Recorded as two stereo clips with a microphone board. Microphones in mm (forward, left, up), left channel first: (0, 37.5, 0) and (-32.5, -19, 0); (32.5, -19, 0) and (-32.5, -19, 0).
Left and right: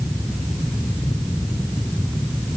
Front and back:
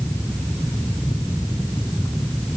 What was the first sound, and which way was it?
Only background noise.